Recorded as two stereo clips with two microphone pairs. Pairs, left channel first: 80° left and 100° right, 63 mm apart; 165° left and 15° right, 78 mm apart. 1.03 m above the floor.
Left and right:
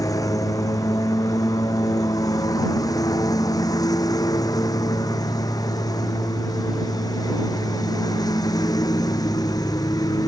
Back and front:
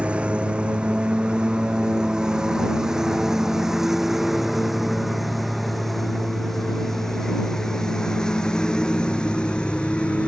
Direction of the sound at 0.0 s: 55° left.